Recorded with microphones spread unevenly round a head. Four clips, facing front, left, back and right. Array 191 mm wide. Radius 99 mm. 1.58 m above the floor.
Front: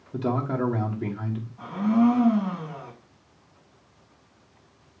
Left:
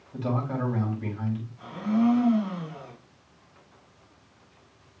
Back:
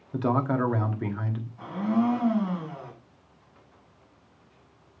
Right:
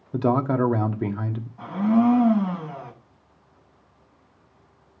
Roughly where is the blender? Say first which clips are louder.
Right 5 dB, front 4 dB; ahead right.